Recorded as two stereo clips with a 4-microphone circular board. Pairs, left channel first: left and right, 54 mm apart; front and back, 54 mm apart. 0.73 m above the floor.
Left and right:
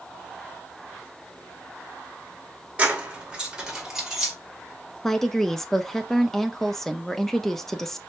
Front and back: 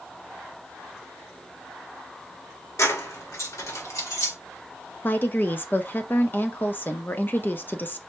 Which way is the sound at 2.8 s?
25° right.